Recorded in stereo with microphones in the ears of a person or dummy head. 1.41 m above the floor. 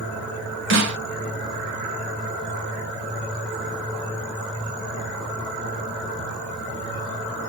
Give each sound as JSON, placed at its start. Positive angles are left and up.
{"t": 0.7, "sound": "a snare drum", "side_deg": -60, "distance_m": 1.4}